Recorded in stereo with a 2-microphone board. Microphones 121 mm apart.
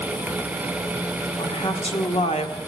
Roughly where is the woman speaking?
Left.